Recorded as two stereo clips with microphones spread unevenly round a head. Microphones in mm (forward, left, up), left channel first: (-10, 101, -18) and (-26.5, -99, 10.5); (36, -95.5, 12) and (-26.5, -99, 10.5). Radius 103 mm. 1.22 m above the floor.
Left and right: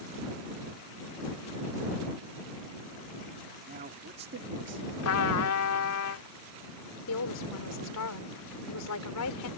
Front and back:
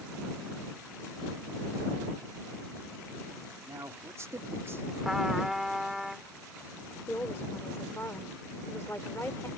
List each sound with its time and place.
3.7 s a man speaking: 140° right; by 4.8 s 125° right
5.0 s a trumpet: 95° left
7.1 s a woman speaking: 80° left